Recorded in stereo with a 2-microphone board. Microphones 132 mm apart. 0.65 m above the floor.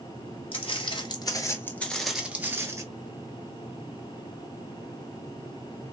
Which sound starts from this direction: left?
Footsteps, at 0.5 s.